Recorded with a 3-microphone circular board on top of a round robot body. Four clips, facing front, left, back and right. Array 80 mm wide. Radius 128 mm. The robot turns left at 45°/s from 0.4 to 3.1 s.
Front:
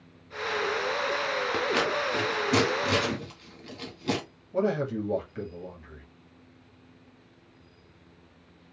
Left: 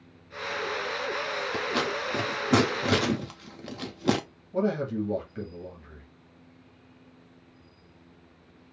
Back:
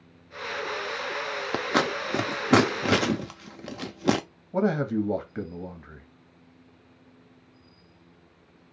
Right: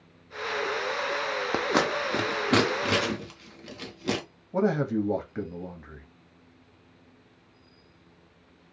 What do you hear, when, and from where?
1.5 s scissors: 130° right, 0.6 m; by 4.2 s 160° left, 0.6 m
4.5 s a man speaking: 140° right, 1.3 m